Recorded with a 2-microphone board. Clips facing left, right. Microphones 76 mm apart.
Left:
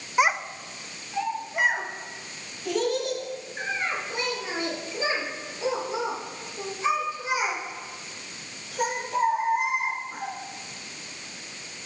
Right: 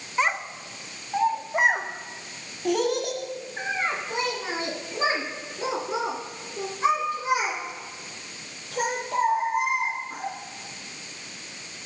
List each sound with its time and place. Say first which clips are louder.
0.2 s a child speaking: left 2 dB; 15° left (ahead or behind), 0.5 m; by 10.3 s 65° right (ahead or behind), 5 m